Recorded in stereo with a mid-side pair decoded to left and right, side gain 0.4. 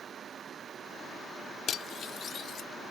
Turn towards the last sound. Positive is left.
turn(degrees=65)